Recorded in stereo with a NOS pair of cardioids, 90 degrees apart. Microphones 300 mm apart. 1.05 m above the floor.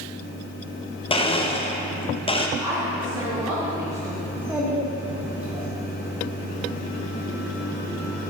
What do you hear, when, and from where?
1.1 s a blender: 20° left, 0.7 m
2.6 s a woman speaking: 10° right, 1.9 m
4.3 s a child speaking: 5° right, 1.8 m